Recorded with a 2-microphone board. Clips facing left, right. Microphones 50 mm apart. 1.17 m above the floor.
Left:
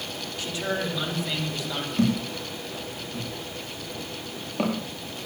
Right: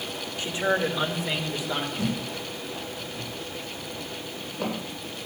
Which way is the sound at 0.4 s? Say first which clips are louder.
Right 4 dB; 20° right (ahead or behind).